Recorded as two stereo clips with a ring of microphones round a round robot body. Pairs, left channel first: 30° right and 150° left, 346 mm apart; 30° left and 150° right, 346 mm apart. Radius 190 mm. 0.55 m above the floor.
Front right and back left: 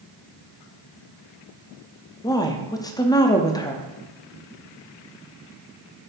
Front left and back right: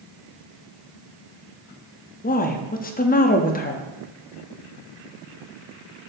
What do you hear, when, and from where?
2.2 s a woman speaking: 35° left, 0.6 m